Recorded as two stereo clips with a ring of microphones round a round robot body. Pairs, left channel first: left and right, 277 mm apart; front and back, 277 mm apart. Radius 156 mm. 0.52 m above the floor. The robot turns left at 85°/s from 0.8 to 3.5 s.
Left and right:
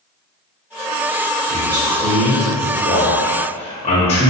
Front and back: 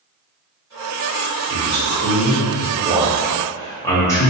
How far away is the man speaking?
About 0.8 m.